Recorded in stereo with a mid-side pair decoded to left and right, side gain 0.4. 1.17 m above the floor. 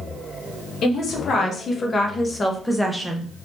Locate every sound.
0.8 s a woman speaking: 65° left, 1.5 m; by 3.3 s 5° right, 1.1 m